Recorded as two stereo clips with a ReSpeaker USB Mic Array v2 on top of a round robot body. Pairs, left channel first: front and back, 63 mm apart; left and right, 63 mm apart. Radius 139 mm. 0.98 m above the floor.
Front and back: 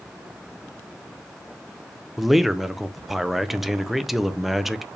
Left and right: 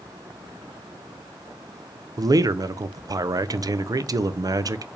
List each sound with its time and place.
2.2 s a man speaking: 95° right, 0.5 m